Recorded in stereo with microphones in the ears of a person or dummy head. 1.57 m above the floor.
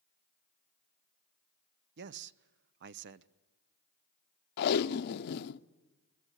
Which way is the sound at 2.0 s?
65° right (ahead or behind).